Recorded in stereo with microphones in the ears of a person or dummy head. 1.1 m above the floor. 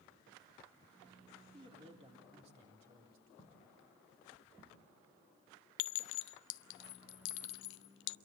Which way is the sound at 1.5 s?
25° right (ahead or behind).